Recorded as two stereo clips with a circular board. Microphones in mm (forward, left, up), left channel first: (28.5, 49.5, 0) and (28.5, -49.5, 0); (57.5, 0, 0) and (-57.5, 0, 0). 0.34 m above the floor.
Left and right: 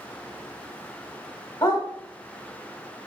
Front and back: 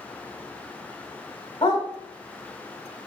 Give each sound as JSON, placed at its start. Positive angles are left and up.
{"t": 1.6, "sound": "a dog barking", "azimuth_deg": 45, "distance_m": 0.7}